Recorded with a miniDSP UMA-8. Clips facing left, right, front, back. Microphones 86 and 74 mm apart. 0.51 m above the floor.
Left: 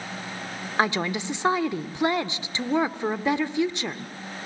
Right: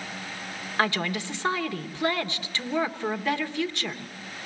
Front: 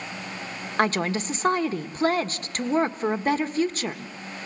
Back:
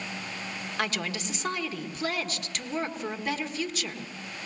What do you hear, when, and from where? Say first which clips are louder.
0.8 s a woman speaking: left 2 dB, front 9 dB; 25° left, 1.2 m